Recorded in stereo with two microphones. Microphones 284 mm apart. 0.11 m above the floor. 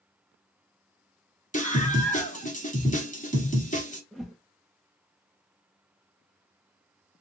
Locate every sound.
1.5 s a scream: 25° left (ahead or behind), 1.3 m
4.1 s a whoosh: centre (ahead or behind), 0.6 m